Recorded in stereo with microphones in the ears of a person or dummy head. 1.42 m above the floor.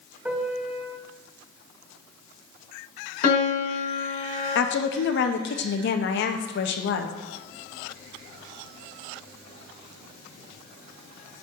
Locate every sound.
0.2 s a piano: 5° right (ahead or behind), 1.0 m
3.2 s a piano: 45° left (ahead or behind), 2.5 m
4.5 s a woman speaking: 65° left (ahead or behind), 0.9 m